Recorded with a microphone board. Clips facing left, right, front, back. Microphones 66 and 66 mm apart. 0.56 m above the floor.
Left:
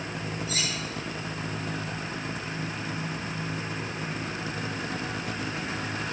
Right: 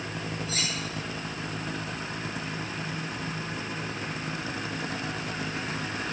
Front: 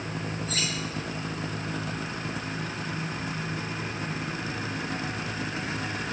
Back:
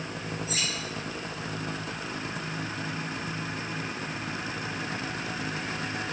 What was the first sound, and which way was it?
Cutlery clinking, 100° left.